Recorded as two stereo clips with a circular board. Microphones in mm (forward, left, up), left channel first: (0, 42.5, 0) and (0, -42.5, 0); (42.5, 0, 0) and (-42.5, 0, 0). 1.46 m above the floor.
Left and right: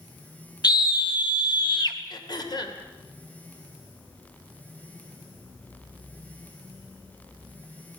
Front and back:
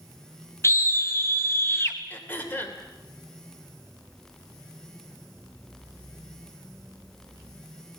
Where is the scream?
55° left, 1.8 m; by 2.0 s 60° left, 2.5 m.